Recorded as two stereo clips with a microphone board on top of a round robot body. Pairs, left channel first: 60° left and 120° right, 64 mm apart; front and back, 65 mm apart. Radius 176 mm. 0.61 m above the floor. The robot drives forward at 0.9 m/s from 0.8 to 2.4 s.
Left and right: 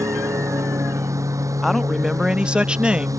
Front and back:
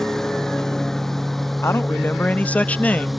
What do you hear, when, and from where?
0.0 s a lawn mower: 85° right; by 3.2 s 90° right
1.6 s a man speaking: 30° right; by 3.2 s 55° right